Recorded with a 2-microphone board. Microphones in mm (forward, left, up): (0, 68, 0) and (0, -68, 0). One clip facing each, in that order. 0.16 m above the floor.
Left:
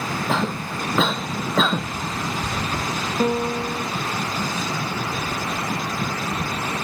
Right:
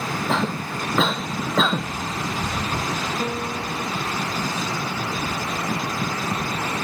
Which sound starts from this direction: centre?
A cough, at 0.3 s.